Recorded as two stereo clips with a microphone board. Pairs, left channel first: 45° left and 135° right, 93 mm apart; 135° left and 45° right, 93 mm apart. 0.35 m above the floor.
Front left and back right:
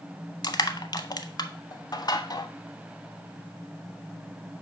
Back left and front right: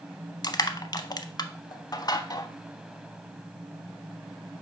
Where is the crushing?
90° left, 0.6 m.